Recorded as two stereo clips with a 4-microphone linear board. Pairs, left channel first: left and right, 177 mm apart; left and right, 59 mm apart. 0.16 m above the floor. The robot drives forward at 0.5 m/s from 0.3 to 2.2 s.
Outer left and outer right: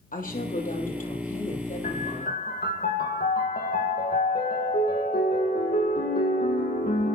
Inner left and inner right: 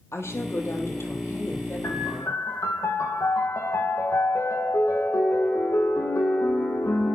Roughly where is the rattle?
No rattle in this recording.